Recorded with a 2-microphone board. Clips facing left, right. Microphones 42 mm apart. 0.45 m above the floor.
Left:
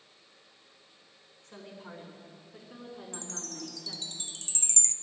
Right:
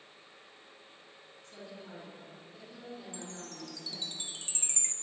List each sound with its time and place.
1.4 s a woman speaking: 75° left (ahead or behind), 4.5 m
3.1 s a chime: 20° right (ahead or behind), 0.8 m